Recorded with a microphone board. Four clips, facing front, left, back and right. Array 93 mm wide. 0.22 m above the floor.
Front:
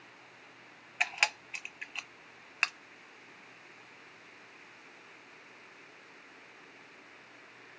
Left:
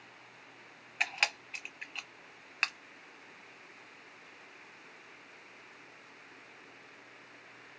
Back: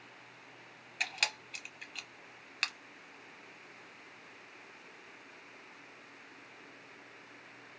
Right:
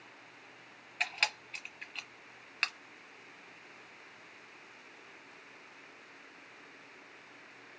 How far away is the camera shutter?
About 0.6 m.